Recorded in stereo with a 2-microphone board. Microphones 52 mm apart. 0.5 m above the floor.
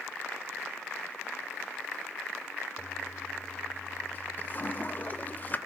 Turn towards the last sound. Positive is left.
turn(degrees=35)  # may be behind; listen again after turning